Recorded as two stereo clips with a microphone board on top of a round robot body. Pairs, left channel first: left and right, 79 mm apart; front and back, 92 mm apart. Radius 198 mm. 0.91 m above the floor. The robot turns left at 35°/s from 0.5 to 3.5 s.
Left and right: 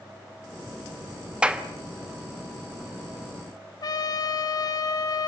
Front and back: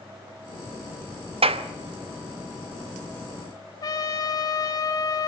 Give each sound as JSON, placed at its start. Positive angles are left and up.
{"t": 1.4, "sound": "a clap", "azimuth_deg": -170, "distance_m": 1.2}
{"t": 3.8, "sound": "a trumpet", "azimuth_deg": 50, "distance_m": 1.4}